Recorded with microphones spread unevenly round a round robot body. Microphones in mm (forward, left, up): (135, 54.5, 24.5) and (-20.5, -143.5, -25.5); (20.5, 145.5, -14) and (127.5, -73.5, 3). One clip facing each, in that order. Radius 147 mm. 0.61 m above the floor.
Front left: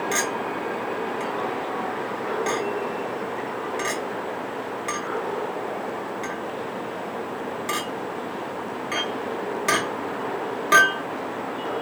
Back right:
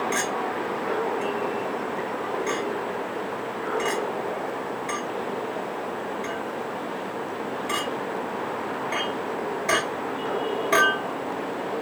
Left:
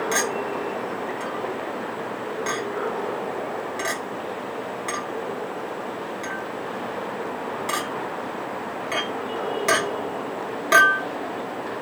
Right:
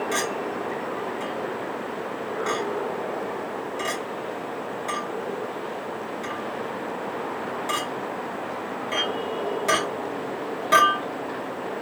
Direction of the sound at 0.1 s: 60° left.